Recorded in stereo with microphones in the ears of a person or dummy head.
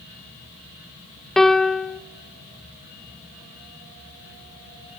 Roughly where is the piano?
Centre.